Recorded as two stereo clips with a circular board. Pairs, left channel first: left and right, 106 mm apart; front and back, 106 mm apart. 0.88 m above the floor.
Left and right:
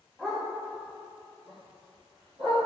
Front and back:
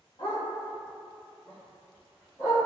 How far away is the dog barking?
About 0.7 m.